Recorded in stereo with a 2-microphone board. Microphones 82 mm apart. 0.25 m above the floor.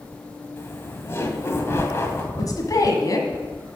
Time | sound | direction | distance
0.6 | laughter | 35° left (ahead or behind) | 1.7 m
2.3 | a woman speaking | 50° left (ahead or behind) | 1.7 m